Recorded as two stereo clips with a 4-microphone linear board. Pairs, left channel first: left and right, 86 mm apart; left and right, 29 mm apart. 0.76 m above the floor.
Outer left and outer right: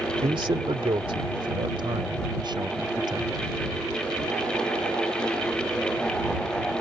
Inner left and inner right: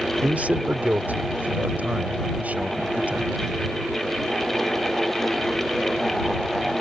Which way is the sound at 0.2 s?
65° right (ahead or behind).